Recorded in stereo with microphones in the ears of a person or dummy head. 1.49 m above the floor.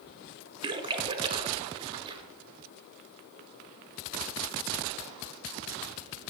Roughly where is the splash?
Right.